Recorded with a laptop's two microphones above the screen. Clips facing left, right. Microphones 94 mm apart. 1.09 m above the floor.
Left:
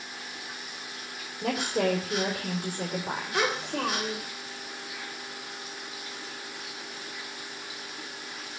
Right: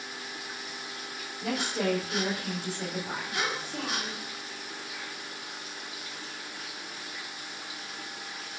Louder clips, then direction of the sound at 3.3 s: Left 6 dB; 75° left (ahead or behind).